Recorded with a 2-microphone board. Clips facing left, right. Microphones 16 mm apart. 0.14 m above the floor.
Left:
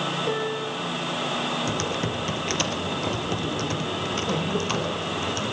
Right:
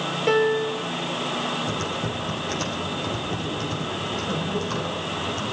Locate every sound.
0.3 s a piano: 55° right (ahead or behind), 2.5 m
1.7 s typing on a keyboard: 65° left (ahead or behind), 3.5 m